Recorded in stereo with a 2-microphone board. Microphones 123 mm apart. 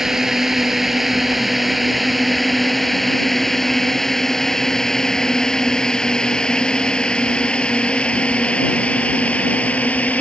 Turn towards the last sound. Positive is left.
turn(degrees=10)  # may be behind; listen again after turning